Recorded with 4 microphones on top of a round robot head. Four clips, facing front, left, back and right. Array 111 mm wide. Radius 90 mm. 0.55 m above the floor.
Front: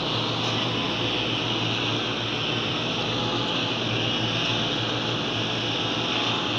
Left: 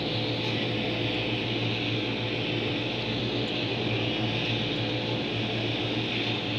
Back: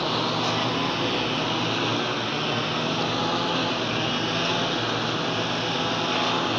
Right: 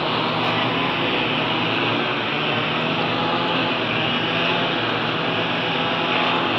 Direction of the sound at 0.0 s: 110° right.